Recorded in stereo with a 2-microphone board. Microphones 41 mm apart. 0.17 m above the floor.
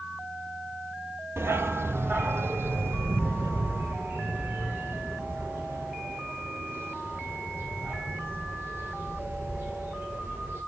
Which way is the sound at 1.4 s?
75° right (ahead or behind).